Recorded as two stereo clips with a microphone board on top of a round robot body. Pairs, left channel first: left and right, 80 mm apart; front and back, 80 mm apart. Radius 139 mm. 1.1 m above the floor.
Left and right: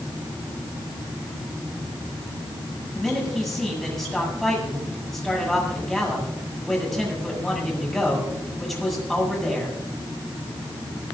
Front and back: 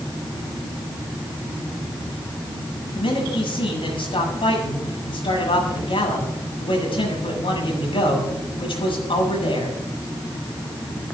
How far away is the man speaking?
About 8 m.